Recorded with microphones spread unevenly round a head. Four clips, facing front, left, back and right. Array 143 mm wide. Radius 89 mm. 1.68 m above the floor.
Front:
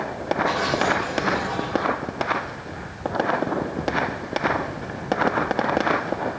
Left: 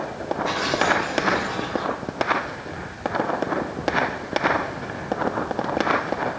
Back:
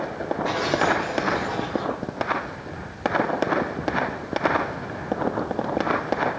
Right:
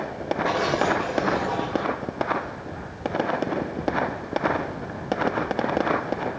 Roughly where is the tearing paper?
Right.